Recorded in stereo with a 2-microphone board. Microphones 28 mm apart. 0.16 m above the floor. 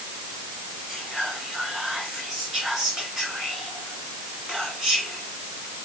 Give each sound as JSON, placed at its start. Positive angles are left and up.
{"t": 0.9, "sound": "whispering", "side_deg": -25, "distance_m": 2.5}